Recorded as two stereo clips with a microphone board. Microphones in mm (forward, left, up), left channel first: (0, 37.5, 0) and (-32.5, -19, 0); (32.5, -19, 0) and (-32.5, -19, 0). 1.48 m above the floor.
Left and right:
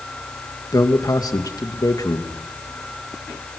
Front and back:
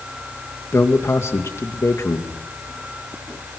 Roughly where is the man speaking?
Ahead left.